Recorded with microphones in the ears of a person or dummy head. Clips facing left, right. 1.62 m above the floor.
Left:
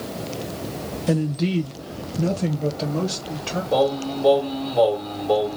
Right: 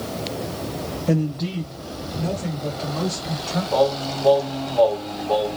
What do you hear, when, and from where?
1.1 s a man speaking: 5° left (ahead or behind), 0.6 m; by 3.6 s 50° left (ahead or behind), 2 m
3.7 s singing: 60° left (ahead or behind), 2.0 m